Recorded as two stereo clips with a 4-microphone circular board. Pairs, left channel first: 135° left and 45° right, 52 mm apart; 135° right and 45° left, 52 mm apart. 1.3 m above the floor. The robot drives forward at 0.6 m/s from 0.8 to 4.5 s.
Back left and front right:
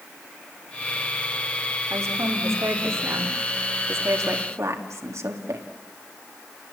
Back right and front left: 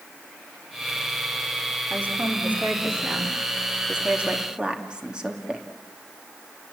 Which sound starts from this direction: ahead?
A woman speaking, at 1.9 s.